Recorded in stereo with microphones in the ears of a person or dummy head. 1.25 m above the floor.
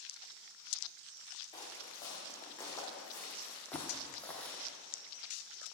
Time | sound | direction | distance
1.5 | footsteps | 25° left (ahead or behind) | 4 m
3.7 | a thud | 15° left (ahead or behind) | 0.8 m